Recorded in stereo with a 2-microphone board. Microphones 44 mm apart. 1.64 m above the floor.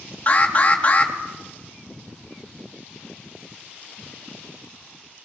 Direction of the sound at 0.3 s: 30° left (ahead or behind).